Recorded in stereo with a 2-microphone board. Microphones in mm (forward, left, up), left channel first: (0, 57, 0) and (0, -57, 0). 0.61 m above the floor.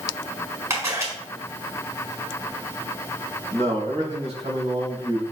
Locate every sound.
0.7 s a camera shutter: 25° right (ahead or behind), 4.5 m
3.5 s a man speaking: 75° right (ahead or behind), 4.5 m